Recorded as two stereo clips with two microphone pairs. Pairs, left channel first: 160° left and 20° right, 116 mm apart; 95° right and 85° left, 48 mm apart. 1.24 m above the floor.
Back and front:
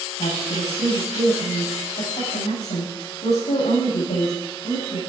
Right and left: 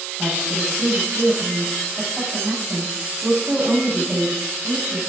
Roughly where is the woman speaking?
Behind.